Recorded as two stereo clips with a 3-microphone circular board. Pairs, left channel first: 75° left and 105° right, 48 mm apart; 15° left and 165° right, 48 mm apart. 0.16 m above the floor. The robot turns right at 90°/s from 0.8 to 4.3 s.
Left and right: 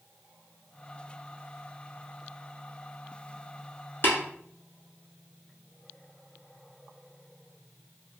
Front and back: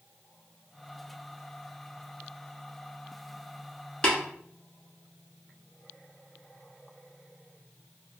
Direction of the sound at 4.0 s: 75° left.